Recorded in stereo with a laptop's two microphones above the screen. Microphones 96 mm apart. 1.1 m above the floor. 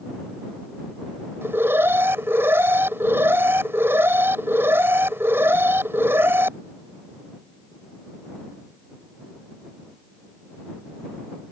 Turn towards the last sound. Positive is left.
turn(degrees=-25)  # may be behind; listen again after turning